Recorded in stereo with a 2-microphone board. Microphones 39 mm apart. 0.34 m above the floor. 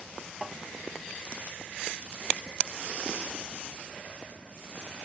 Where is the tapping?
Centre (ahead or behind).